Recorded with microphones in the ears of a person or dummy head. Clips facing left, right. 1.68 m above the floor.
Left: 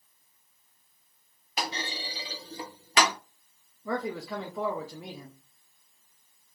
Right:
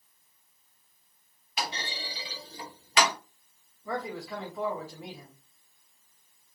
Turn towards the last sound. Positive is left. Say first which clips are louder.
# left 3 dB
turn(degrees=70)  # may be behind; listen again after turning